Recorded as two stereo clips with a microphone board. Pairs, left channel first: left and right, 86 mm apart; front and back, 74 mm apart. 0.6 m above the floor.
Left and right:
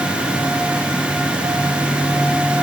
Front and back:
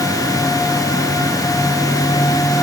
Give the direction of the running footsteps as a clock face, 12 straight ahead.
No running footsteps in this recording.